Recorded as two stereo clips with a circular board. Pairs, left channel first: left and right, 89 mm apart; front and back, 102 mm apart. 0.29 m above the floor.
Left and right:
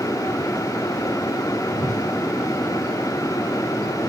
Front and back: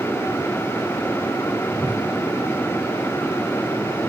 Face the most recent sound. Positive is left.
turn(degrees=-45)